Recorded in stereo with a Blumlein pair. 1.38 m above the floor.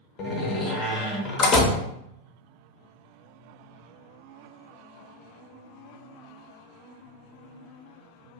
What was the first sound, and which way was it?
A door slam, 25° left.